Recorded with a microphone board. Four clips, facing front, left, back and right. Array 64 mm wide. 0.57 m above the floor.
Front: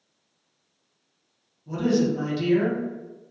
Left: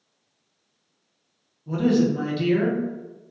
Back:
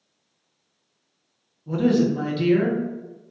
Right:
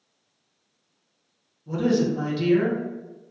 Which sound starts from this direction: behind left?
A woman speaking, at 1.7 s.